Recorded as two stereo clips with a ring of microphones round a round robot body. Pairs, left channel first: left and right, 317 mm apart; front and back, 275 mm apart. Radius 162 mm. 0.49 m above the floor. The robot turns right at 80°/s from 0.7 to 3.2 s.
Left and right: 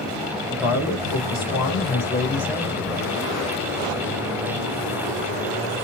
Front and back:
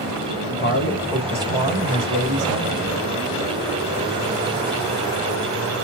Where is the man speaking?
50° left, 3 m; by 2.8 s 140° right, 3 m.